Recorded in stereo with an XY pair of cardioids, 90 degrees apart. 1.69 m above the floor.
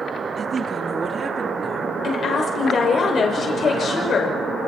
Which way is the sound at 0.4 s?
50° right.